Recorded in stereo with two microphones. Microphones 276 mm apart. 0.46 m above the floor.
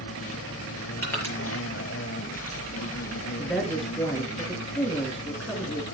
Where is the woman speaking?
Centre (ahead or behind), 6 m.